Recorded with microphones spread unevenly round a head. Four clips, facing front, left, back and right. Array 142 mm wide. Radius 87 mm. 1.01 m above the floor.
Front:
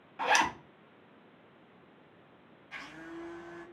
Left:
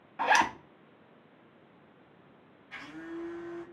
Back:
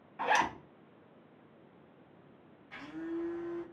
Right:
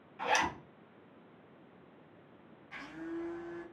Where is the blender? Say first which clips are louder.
Even, back 6 dB; 175° right, 1.1 m.